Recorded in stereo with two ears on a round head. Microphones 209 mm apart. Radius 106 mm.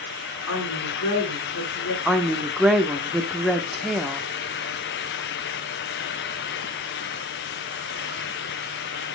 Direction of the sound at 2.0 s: Centre (ahead or behind).